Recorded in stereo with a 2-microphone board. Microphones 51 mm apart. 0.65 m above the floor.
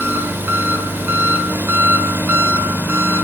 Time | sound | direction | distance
0.0 | an engine running | 45° right (ahead or behind) | 1.9 m